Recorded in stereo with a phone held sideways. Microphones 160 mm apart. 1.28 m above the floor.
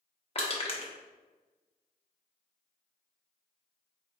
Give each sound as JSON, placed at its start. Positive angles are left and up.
{"t": 0.3, "sound": "crushing", "side_deg": 40, "distance_m": 1.0}